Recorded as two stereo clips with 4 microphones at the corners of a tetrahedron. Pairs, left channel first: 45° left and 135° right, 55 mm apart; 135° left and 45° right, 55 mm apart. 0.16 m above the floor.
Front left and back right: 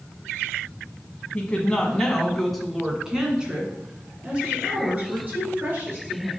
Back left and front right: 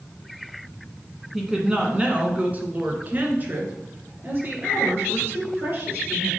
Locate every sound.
1.3 s a woman speaking: 25° left, 1.3 m; by 6.3 s 80° right, 3 m